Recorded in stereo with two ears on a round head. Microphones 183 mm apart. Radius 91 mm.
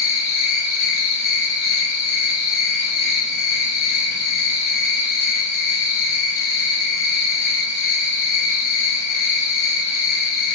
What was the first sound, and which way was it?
An insect, 50° left (ahead or behind).